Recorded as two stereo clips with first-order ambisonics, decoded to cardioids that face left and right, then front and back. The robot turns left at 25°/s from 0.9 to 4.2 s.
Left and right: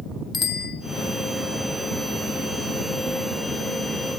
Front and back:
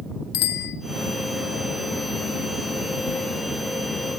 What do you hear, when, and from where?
0.3 s a bicycle bell: 20° left, 2.5 m